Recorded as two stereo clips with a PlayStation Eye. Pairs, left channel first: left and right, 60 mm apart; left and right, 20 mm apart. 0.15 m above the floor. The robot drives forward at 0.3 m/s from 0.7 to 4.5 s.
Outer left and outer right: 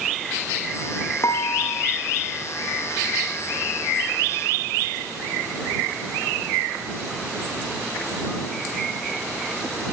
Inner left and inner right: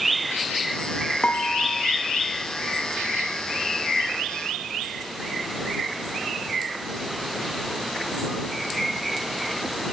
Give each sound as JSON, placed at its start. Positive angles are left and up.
{"t": 1.2, "sound": "dishes clattering", "side_deg": 65, "distance_m": 7.0}